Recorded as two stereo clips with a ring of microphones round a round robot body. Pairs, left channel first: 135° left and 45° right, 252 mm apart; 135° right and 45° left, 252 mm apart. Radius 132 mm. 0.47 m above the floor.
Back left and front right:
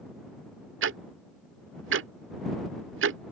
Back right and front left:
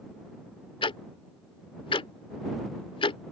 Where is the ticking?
70° right.